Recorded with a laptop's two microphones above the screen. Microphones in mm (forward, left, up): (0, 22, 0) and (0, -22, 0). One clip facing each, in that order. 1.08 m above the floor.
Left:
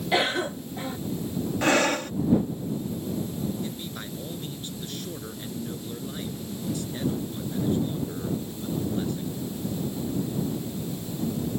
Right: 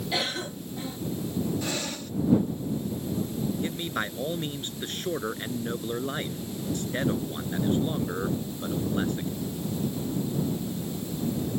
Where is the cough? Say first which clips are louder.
Left 7 dB; 30° left (ahead or behind).